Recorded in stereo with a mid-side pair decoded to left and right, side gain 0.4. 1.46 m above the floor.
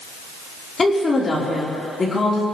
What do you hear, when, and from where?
0.8 s a woman speaking: 35° left, 4.5 m